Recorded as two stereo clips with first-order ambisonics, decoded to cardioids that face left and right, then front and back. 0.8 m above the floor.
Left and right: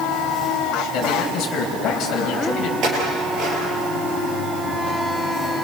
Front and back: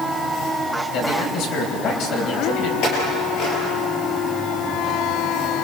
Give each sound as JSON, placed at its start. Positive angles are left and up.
{"t": 0.9, "sound": "a man speaking", "azimuth_deg": 35, "distance_m": 4.0}
{"t": 2.8, "sound": "a clink", "azimuth_deg": -40, "distance_m": 8.5}